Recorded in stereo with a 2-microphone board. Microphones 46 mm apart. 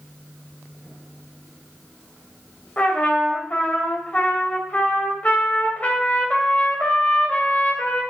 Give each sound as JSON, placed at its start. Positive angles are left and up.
{"t": 2.8, "sound": "a trumpet", "side_deg": 35, "distance_m": 2.0}